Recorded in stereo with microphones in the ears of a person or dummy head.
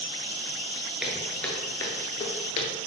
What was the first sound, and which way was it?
Footsteps, 5° right (ahead or behind).